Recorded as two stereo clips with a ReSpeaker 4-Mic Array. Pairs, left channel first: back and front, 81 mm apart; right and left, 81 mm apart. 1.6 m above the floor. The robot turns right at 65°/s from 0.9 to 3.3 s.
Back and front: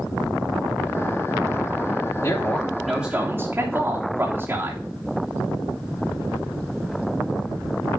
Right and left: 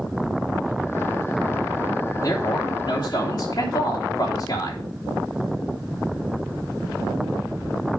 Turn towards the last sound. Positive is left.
turn(degrees=-65)